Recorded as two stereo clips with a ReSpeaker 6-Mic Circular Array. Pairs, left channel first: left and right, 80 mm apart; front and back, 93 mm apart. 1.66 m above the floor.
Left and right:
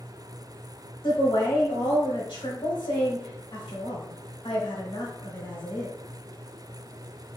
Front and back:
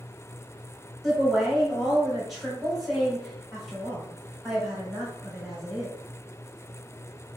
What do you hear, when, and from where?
1.0 s a woman speaking: 90° left, 1.7 m